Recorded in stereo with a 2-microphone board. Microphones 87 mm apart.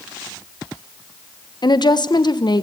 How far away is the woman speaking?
About 1.2 m.